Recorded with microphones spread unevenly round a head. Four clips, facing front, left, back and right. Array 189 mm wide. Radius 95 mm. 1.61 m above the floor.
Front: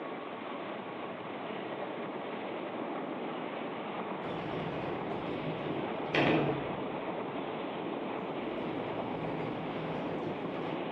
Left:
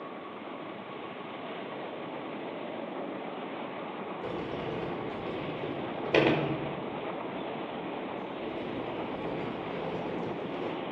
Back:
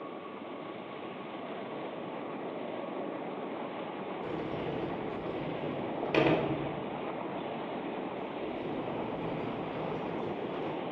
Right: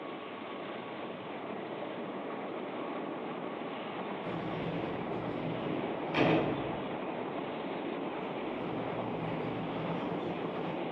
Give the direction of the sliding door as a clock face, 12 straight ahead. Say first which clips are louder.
Left 4 dB, back 1 dB; 8 o'clock.